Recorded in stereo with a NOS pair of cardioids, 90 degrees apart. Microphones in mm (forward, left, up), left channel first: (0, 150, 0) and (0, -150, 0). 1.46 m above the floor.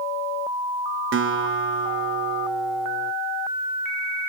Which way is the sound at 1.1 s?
40° right.